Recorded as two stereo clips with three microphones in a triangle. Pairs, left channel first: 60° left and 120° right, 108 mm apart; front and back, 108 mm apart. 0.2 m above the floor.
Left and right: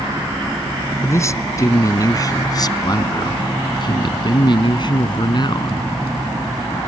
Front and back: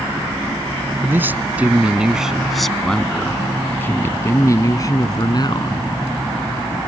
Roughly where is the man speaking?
Behind left.